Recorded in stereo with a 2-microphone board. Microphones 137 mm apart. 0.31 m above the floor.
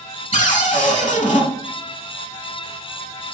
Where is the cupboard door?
65° left (ahead or behind), 0.8 m.